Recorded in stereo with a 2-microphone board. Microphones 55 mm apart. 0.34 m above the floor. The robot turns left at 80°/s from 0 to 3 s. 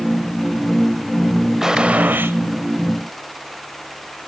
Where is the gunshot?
10° right, 0.9 m; by 2.4 s 70° right, 0.9 m.